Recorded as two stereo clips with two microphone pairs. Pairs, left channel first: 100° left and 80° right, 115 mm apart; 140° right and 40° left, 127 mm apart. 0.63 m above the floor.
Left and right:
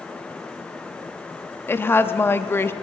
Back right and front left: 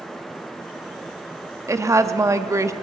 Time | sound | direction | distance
1.7 | a woman speaking | 60° left | 0.5 m